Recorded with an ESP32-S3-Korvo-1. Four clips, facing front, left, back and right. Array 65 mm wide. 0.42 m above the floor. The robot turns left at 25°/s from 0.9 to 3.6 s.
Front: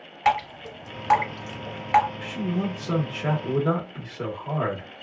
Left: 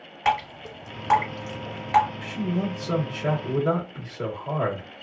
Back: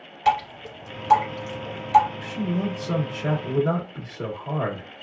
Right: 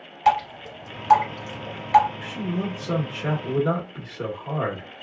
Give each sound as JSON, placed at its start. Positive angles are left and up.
{"t": 0.2, "sound": "dripping", "azimuth_deg": 30, "distance_m": 1.6}
{"t": 2.2, "sound": "a man speaking", "azimuth_deg": -20, "distance_m": 1.1}